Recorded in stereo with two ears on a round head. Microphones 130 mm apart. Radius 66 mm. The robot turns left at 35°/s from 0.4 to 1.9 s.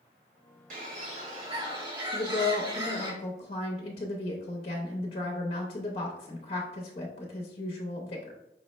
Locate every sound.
0.7 s a bird: 110° right, 1.2 m; by 3.1 s 150° right, 1.2 m
2.1 s a woman speaking: 40° left (ahead or behind), 0.7 m